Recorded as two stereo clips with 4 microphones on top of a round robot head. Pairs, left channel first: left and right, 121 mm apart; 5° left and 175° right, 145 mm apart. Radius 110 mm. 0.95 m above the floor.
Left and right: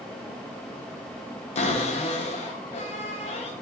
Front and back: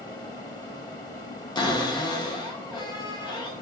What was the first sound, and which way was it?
A cupboard door, 60° left.